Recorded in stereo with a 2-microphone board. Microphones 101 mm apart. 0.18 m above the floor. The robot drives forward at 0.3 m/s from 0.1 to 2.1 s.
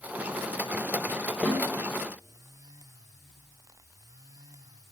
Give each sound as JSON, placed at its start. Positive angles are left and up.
{"t": 1.4, "sound": "a snare drum", "side_deg": 0, "distance_m": 3.5}